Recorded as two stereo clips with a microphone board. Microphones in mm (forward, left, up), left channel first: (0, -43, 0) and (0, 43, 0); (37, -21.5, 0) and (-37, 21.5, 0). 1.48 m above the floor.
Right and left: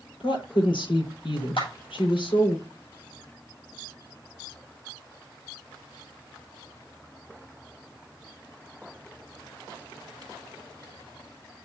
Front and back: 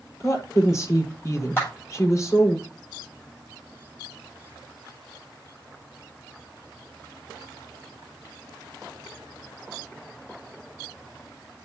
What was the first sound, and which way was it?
A woman speaking, 85° right.